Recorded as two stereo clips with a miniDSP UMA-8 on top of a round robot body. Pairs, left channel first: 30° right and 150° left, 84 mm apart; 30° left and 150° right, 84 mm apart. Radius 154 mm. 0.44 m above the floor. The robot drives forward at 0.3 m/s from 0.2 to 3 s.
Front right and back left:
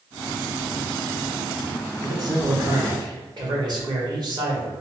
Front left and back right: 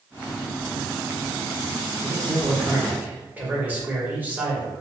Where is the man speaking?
130° left, 1.0 m; by 4.7 s 140° left, 1.2 m.